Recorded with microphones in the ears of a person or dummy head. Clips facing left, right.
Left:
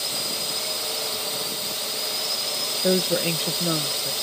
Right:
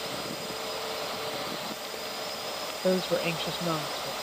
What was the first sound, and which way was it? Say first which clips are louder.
A drone: left 1 dB; 50° left (ahead or behind).